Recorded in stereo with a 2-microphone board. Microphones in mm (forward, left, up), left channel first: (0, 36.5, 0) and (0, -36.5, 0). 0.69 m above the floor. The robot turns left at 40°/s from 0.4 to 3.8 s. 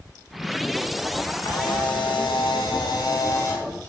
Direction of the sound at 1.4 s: 125° left.